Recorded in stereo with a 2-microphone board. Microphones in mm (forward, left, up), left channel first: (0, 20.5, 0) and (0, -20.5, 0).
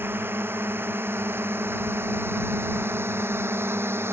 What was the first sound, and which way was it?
A drone, 60° right (ahead or behind).